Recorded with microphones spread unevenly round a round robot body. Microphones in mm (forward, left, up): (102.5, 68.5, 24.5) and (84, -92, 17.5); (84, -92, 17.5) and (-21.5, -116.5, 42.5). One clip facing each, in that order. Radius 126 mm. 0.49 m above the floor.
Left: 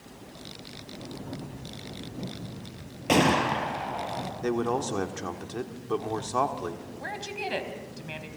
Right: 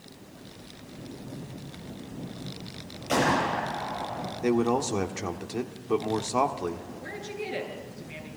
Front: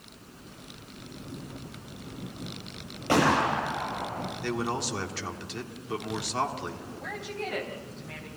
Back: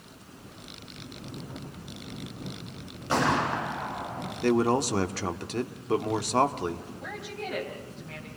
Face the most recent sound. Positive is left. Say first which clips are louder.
# left 4 dB, front 1 dB
turn(degrees=100)